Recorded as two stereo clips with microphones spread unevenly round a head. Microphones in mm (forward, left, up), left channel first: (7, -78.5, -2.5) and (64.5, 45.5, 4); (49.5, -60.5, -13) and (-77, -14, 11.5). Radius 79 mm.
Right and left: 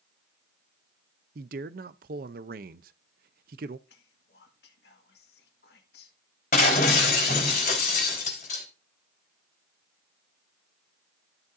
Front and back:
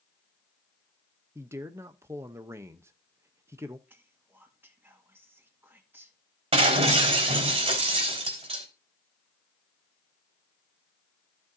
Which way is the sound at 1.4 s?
80° left.